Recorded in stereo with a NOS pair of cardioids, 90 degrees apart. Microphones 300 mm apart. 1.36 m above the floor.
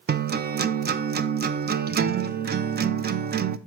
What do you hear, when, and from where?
0.1 s a guitar: 35° right, 0.5 m